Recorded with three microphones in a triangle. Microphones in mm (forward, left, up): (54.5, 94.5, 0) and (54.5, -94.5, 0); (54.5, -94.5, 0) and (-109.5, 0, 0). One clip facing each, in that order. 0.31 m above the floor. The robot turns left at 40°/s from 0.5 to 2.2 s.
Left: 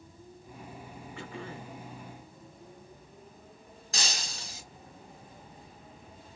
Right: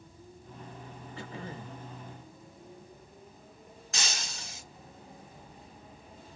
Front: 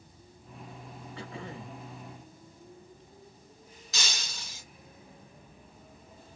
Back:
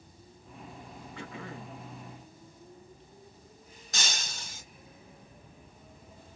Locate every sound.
1.2 s throat clearing: 65° right, 0.8 m; by 1.8 s 90° right, 0.8 m
3.9 s breaking glass: 135° left, 0.8 m